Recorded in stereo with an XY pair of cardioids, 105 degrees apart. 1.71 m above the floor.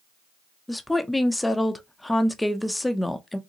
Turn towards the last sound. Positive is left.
turn(degrees=10)